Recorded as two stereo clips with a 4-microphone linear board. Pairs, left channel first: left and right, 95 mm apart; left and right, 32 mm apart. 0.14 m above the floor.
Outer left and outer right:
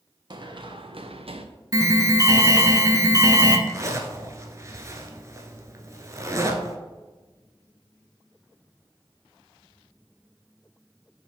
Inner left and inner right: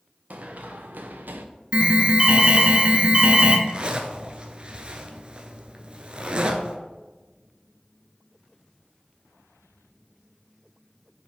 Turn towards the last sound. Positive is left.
turn(degrees=-35)  # may be behind; listen again after turning